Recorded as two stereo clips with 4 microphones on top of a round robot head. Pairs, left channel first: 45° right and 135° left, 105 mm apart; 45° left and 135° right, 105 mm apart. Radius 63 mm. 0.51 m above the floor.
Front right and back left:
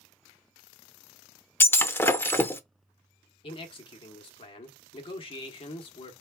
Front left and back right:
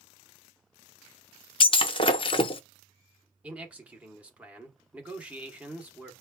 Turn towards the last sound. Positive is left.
turn(degrees=-55)